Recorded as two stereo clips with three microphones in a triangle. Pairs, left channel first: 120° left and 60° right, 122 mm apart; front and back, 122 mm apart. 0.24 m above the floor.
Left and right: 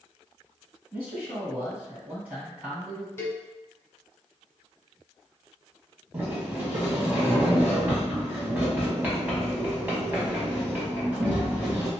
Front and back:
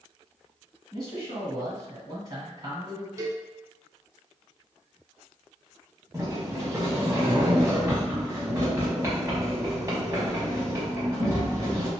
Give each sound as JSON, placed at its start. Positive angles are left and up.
{"t": 0.9, "sound": "a man speaking", "azimuth_deg": -135, "distance_m": 1.8}
{"t": 3.2, "sound": "a cowbell", "azimuth_deg": 165, "distance_m": 0.7}
{"t": 6.1, "sound": "a sliding door", "azimuth_deg": -125, "distance_m": 1.2}